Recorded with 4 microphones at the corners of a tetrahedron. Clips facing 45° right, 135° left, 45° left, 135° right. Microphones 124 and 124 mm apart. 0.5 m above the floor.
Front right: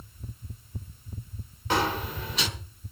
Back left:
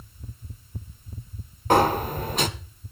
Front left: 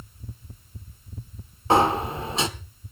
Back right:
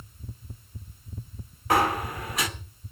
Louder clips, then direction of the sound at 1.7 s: Back left 7 dB, front left 4 dB; 105° left.